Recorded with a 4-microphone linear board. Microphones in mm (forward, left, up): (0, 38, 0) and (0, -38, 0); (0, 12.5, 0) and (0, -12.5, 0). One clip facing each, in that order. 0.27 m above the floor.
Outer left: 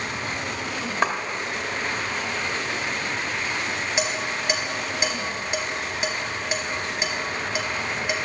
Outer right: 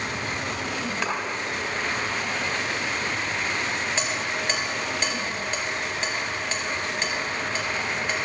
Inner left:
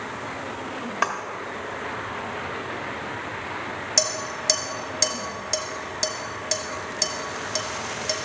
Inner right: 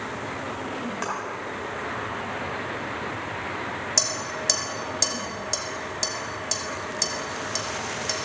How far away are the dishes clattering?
About 1.2 m.